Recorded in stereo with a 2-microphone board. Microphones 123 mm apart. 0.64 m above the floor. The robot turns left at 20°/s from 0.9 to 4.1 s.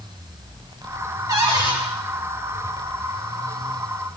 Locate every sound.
1.3 s a cupboard door: 35° right (ahead or behind), 5 m; by 1.8 s 45° right (ahead or behind), 5 m